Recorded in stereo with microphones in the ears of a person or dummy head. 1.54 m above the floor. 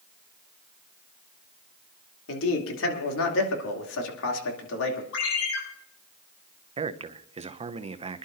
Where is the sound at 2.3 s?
75° left (ahead or behind), 3 m.